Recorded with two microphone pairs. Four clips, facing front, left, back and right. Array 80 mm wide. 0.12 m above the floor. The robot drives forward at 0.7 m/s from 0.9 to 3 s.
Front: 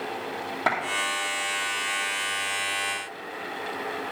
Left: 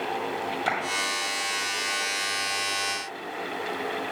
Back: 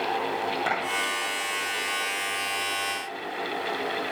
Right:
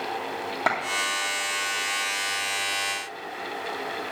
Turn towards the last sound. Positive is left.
turn(degrees=-90)